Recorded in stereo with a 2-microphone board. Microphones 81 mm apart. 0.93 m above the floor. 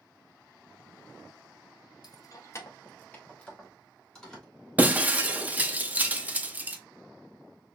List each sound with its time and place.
2.0 s keys jangling: 55° left (ahead or behind), 0.6 m; by 4.5 s 5° left (ahead or behind), 1.6 m
4.8 s breaking glass: 20° right (ahead or behind), 0.5 m